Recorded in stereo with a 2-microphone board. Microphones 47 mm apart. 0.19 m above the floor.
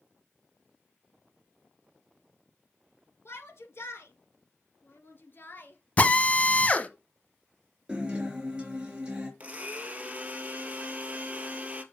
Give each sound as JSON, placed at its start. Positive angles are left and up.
{"t": 3.2, "sound": "a shout", "side_deg": 65, "distance_m": 2.5}
{"t": 6.0, "sound": "a drill", "side_deg": 30, "distance_m": 1.4}
{"t": 7.9, "sound": "a guitar", "side_deg": -20, "distance_m": 4.0}
{"t": 9.4, "sound": "a blender", "side_deg": -30, "distance_m": 1.6}